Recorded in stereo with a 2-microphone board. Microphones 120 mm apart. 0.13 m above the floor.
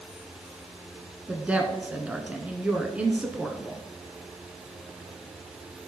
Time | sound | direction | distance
1.3 | a woman speaking | 10° right (ahead or behind) | 1.1 m